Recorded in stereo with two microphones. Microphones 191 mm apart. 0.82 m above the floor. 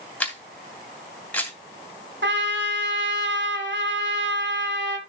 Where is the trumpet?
70° right (ahead or behind), 1.5 m.